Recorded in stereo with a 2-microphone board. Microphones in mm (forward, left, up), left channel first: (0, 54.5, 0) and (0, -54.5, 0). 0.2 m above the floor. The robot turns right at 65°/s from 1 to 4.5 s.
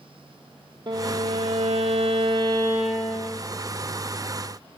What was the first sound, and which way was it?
A violin, 135° right.